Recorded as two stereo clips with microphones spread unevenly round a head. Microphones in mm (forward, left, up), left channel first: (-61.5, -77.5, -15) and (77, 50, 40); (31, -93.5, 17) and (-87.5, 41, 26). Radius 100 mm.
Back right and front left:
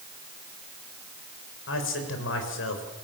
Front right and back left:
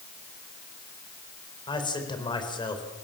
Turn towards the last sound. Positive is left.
turn(degrees=-115)